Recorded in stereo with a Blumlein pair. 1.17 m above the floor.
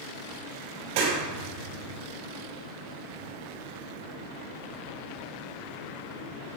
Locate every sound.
0.9 s a clap: 50° right, 3.5 m